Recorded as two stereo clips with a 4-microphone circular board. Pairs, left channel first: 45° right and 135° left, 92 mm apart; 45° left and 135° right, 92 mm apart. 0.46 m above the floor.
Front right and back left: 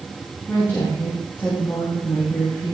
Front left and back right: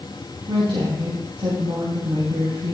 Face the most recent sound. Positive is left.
turn(degrees=-115)